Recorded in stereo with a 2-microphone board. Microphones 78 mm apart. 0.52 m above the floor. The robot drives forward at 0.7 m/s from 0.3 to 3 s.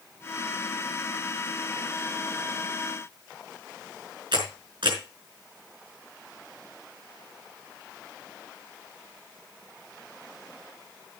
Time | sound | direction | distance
4.3 | a camera shutter | 85° right | 5 m